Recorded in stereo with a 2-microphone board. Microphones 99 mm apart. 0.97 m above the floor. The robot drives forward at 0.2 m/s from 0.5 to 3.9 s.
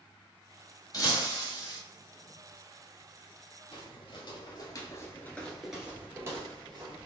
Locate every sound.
0.9 s breaking glass: 35° left (ahead or behind), 1.1 m; by 1.8 s 40° left (ahead or behind), 1.0 m
3.7 s footsteps: 60° left (ahead or behind), 1.8 m; by 7.1 s 45° right (ahead or behind), 1.6 m